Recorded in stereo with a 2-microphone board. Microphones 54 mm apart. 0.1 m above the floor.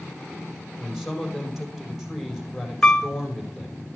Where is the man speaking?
Centre (ahead or behind), 4.5 m.